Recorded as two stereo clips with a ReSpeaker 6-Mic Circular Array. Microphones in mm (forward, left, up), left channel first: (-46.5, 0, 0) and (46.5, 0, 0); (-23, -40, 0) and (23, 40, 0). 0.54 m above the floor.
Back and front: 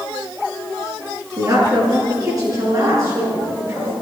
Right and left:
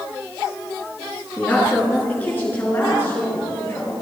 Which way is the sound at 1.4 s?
45° right.